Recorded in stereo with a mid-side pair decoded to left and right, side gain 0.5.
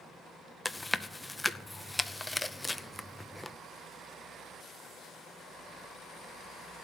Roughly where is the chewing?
Ahead.